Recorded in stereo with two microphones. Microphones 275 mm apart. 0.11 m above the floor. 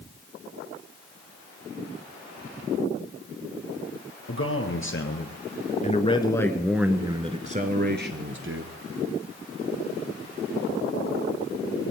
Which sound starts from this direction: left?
A man speaking, at 4.3 s.